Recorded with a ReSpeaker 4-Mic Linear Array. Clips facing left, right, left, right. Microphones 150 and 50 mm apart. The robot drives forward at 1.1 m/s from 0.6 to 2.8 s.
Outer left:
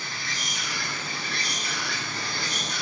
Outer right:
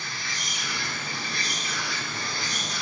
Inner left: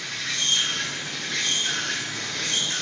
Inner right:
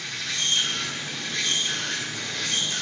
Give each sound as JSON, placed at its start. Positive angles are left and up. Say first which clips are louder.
{"t": 0.0, "sound": "an insect", "louder": "outer left 1 dB, inner left 1 dB", "side_deg": 55, "distance_m": 2.5}